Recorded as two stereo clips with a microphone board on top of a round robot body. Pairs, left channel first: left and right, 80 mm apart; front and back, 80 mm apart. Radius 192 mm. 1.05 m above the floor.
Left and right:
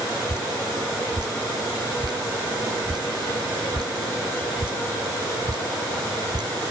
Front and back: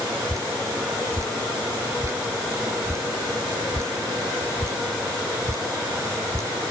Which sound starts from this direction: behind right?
Dripping, at 0.3 s.